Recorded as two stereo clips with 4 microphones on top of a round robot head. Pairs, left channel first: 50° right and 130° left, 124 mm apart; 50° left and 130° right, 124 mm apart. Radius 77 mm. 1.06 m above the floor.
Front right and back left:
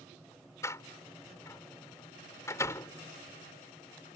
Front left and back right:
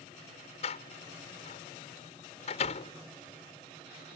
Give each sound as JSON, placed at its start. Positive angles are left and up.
{"t": 0.6, "sound": "a door slam", "azimuth_deg": 15}